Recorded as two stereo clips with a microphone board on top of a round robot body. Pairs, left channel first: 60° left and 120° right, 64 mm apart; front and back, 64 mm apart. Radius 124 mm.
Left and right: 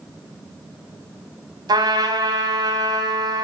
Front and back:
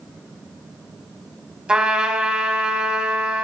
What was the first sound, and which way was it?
A trumpet, 105° right.